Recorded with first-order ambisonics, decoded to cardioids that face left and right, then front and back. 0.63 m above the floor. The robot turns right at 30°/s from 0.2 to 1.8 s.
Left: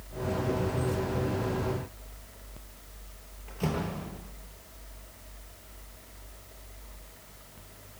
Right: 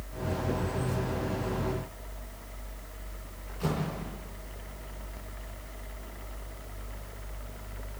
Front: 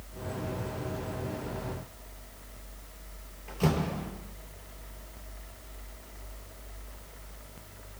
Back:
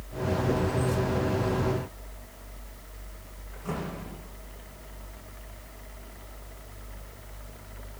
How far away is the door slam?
About 9.5 m.